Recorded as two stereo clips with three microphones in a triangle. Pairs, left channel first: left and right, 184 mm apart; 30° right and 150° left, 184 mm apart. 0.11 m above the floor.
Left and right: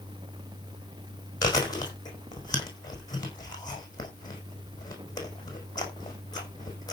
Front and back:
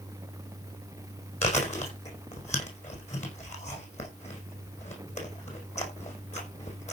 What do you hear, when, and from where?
1.4 s chewing: 20° left, 5.5 m